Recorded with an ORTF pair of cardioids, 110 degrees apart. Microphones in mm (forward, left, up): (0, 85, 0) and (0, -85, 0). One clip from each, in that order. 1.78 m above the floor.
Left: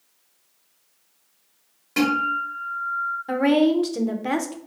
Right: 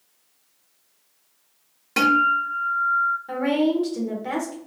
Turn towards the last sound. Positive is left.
turn(degrees=30)